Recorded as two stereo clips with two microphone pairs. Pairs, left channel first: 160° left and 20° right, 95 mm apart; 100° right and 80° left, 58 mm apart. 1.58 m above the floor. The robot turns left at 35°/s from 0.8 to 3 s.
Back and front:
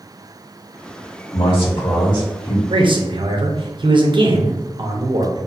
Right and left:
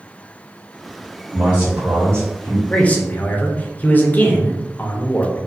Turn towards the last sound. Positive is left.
turn(degrees=-45)